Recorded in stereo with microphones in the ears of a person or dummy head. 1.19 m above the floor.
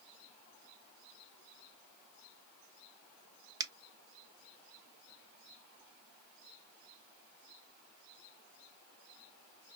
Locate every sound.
3.6 s a finger snap: 20° right (ahead or behind), 0.6 m